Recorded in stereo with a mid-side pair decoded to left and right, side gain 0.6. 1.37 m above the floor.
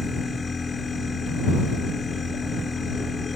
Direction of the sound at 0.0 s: 20° left.